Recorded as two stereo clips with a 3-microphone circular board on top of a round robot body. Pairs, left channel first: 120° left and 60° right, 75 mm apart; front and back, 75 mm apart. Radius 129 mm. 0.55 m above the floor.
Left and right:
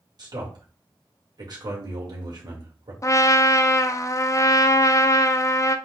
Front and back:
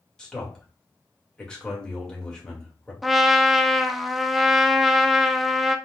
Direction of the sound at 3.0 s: 90° left.